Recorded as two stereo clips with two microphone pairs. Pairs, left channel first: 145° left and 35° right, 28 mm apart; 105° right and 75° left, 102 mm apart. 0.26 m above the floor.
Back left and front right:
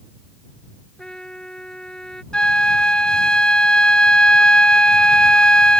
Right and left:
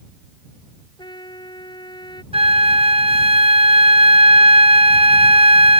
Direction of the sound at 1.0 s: 150° right.